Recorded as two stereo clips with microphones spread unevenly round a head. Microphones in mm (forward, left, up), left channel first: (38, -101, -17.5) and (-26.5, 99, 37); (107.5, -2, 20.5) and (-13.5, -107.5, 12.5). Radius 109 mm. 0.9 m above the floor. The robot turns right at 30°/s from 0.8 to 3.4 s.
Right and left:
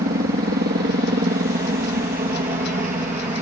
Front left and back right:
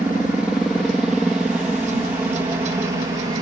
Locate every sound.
0.0 s a helicopter: 150° left; by 3.4 s 165° left